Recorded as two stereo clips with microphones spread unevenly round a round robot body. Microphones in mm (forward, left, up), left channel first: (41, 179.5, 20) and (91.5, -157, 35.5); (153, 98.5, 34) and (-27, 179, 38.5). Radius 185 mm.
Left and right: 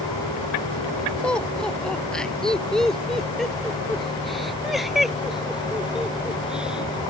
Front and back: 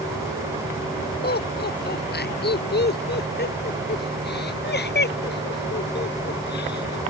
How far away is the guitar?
I don't hear a guitar.